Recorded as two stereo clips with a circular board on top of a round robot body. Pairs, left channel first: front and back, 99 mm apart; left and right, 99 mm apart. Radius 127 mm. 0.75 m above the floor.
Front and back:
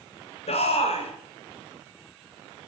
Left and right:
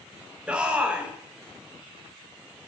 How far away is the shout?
About 3.5 m.